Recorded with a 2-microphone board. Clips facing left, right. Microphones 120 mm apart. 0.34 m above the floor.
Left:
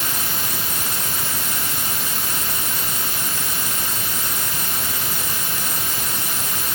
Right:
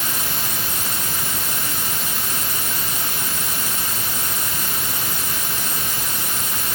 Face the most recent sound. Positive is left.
No sound to turn to.